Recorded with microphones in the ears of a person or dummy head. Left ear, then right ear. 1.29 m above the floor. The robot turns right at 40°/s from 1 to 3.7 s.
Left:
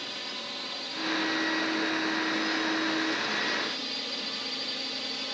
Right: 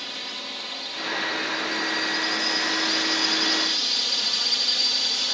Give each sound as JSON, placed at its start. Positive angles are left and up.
{"t": 0.0, "sound": "a drone", "azimuth_deg": -155}